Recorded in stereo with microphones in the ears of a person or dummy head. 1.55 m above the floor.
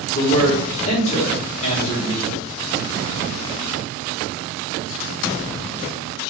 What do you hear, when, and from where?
0.1 s a man speaking: 40° left (ahead or behind), 1.5 m